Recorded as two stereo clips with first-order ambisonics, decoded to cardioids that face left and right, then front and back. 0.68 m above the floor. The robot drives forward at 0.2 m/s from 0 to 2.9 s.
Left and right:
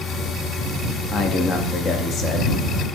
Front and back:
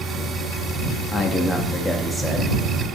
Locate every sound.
1.1 s a man speaking: 50° left, 0.6 m; by 2.6 s 100° left, 0.6 m